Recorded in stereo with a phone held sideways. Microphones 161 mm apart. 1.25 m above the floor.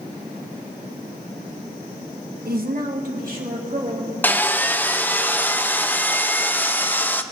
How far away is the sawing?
About 0.5 m.